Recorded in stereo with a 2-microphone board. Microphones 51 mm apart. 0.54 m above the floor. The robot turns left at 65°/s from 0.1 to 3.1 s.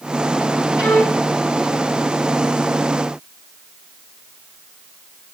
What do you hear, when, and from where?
0.8 s a violin: 40° left (ahead or behind), 5 m; by 1.2 s 10° left (ahead or behind), 5 m